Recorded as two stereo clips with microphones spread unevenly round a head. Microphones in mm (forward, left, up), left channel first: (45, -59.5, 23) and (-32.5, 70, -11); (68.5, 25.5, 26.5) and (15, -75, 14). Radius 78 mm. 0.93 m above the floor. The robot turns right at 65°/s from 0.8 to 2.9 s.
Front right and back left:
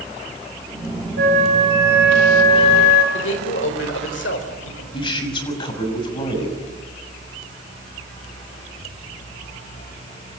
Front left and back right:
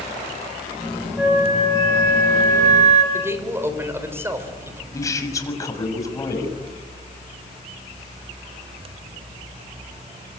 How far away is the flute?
About 3.5 m.